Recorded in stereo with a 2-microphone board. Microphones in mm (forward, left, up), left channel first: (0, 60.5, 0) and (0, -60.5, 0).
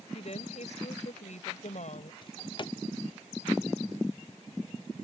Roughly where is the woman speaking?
Left.